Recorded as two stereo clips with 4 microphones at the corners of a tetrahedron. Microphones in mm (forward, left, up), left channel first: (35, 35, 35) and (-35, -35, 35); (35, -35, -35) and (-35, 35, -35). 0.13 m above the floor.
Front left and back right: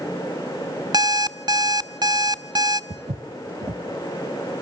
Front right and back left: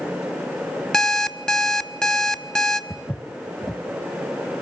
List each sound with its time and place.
0.9 s an alarm clock: 120° right, 0.5 m
2.9 s footsteps: 125° right, 0.9 m